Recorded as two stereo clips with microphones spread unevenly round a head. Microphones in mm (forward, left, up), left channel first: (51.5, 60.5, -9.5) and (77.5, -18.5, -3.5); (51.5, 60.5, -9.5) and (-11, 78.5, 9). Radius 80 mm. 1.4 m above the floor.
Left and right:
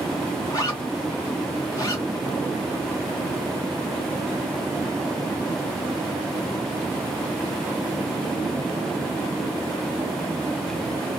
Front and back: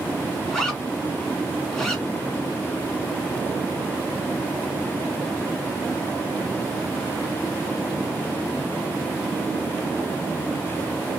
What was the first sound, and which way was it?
A zipper, 60° left.